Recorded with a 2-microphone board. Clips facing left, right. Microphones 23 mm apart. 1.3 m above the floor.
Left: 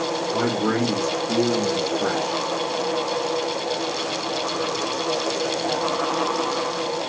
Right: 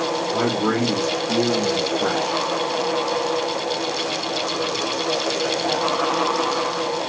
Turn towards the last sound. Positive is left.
turn(degrees=5)  # may be behind; listen again after turning